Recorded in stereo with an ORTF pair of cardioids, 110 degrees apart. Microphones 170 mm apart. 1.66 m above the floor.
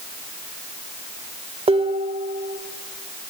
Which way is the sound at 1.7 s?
35° right.